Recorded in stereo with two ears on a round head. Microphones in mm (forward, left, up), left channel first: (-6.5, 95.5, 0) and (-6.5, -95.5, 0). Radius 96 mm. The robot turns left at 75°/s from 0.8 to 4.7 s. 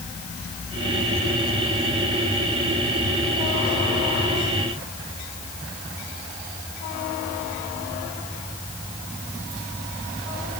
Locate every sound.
Only background noise.